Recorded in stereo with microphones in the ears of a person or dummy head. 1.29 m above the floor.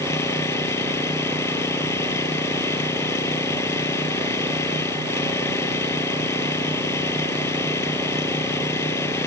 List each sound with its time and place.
0.0 s an engine running: 10° left (ahead or behind)